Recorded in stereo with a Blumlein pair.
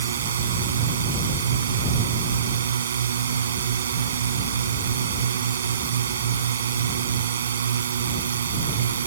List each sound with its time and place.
0.0 s a drone: 65° right